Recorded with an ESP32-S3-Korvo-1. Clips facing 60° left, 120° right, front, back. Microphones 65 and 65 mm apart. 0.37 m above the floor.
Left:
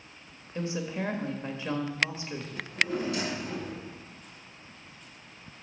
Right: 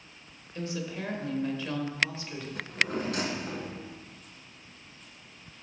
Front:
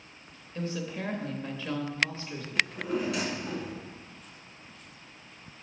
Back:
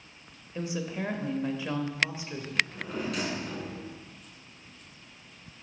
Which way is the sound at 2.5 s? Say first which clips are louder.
Even, front 2 dB; 85° right.